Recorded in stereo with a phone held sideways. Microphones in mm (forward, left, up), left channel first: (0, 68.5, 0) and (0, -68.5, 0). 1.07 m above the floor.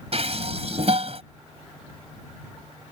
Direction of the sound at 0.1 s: 55° right (ahead or behind).